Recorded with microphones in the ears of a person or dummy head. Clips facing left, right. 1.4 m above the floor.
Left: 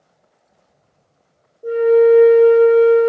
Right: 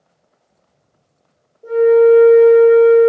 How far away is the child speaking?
I don't hear a child speaking.